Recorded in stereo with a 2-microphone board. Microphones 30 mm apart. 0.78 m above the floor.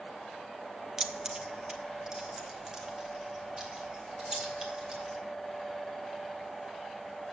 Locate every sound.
1.0 s keys jangling: 20° right (ahead or behind), 0.6 m; by 5.2 s 25° right (ahead or behind), 3 m